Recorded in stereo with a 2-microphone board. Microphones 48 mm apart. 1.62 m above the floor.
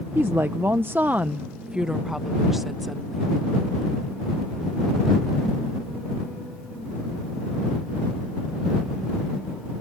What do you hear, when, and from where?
0.1 s a woman speaking: 60° right (ahead or behind); by 3.3 s centre (ahead or behind)